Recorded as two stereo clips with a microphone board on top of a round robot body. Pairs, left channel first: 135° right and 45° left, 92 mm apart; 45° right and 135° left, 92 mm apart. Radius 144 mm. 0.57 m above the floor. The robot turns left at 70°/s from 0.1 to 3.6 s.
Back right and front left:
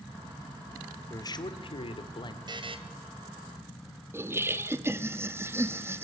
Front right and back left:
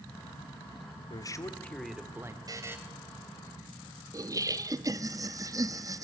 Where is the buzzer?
85° left, 2.5 m; by 2.8 s 65° left, 2.5 m.